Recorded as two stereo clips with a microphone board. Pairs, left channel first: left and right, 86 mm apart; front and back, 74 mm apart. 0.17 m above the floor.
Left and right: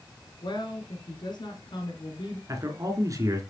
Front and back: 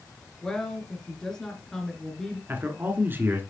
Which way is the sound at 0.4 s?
80° left.